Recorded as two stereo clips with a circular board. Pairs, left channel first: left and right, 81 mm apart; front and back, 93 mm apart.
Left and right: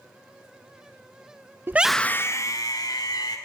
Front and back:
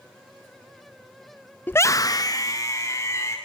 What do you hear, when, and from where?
1.7 s a scream: 55° right, 0.6 m; by 3.4 s 60° left, 2.5 m